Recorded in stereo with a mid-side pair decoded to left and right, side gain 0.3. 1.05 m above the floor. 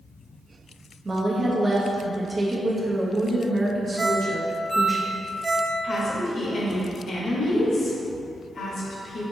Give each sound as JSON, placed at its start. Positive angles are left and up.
{"t": 1.1, "sound": "a woman speaking", "azimuth_deg": -40, "distance_m": 1.0}
{"t": 4.0, "sound": "a ringtone", "azimuth_deg": -35, "distance_m": 0.8}
{"t": 5.8, "sound": "a woman speaking", "azimuth_deg": 65, "distance_m": 1.2}